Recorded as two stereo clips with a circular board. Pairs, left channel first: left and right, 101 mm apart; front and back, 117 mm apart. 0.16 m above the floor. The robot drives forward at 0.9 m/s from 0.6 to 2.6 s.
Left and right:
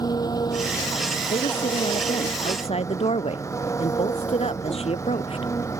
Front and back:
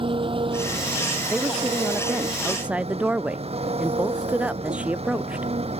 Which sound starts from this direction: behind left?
An engine running, at 0.0 s.